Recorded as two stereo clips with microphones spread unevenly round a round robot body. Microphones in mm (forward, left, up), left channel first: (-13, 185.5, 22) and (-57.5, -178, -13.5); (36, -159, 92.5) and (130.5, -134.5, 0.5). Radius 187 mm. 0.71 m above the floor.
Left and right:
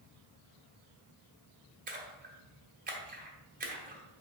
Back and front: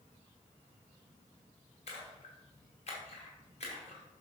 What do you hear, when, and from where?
1.9 s a splash: 165° right, 1.8 m